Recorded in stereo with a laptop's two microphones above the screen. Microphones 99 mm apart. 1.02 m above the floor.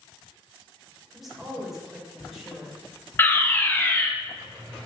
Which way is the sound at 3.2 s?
20° left (ahead or behind).